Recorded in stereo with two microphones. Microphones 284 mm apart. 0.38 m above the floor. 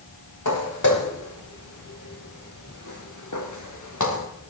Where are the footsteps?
80° left, 4 m; by 4.2 s 70° left (ahead or behind), 3 m.